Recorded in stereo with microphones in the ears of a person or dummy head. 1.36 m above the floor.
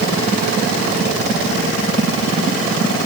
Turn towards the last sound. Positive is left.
No sound to turn to.